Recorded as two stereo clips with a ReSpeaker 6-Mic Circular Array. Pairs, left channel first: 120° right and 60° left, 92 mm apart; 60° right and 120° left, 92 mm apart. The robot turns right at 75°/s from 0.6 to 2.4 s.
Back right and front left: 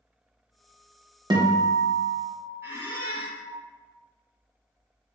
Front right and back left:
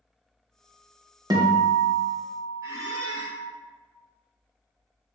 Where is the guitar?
85° left, 0.6 m; by 3.5 s 165° left, 0.6 m.